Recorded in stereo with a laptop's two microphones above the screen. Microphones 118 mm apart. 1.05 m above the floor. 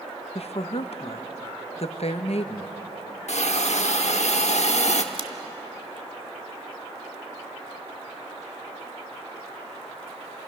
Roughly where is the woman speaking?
Left.